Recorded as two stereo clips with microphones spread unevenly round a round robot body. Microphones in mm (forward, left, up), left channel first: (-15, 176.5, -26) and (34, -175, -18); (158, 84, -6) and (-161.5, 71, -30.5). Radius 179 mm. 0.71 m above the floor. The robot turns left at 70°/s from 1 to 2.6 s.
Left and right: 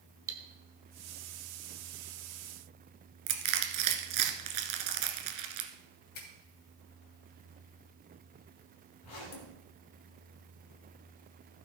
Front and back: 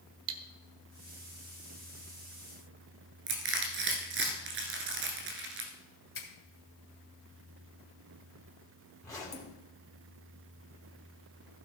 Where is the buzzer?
No buzzer in this recording.